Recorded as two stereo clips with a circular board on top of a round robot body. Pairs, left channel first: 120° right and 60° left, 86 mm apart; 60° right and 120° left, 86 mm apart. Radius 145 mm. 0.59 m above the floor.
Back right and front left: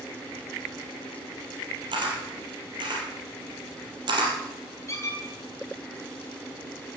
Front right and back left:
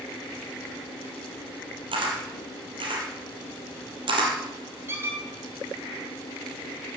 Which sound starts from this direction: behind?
A squeak, at 4.9 s.